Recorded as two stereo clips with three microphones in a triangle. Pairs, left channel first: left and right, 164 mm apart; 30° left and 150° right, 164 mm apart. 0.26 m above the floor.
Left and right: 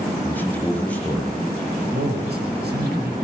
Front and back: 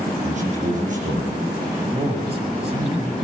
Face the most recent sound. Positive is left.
turn(degrees=-100)